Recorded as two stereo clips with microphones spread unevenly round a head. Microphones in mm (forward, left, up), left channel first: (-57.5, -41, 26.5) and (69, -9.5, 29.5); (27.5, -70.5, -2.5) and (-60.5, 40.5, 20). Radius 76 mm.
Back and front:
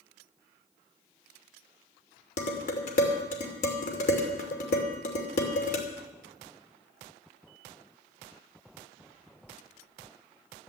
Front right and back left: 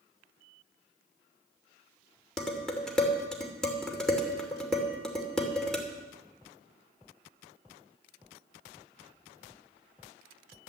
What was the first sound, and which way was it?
Dishes clattering, 140° right.